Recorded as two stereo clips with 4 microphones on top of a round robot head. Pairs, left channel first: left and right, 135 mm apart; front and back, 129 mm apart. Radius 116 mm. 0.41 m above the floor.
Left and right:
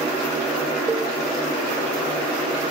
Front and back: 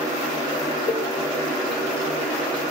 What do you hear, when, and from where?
0.9 s a cowbell: 10° right, 1.1 m